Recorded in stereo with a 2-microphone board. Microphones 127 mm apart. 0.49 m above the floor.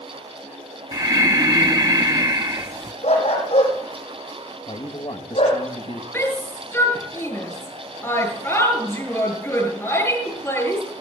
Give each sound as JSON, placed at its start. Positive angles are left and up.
{"t": 0.9, "sound": "breathing", "side_deg": -35, "distance_m": 0.6}
{"t": 3.0, "sound": "a dog barking", "side_deg": 60, "distance_m": 7.5}
{"t": 4.7, "sound": "a man speaking", "side_deg": 50, "distance_m": 2.5}
{"t": 6.1, "sound": "a shout", "side_deg": 20, "distance_m": 8.5}